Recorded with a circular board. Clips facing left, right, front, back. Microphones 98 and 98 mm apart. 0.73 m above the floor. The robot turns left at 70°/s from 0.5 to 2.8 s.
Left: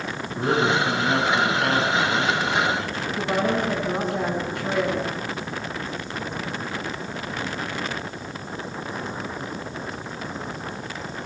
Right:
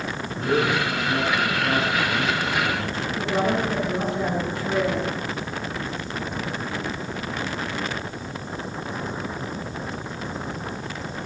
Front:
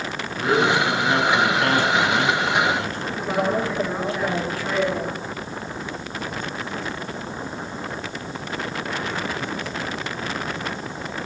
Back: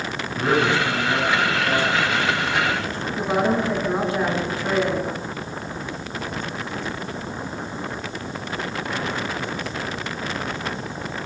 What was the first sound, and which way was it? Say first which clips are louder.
A man speaking: left 1 dB, front 1 dB; 125° left.